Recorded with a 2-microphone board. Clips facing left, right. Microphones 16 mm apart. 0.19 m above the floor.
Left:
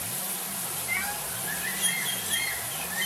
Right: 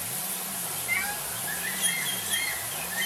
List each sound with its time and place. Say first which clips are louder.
0.9 s a cat meowing: right 2 dB; centre (ahead or behind), 0.8 m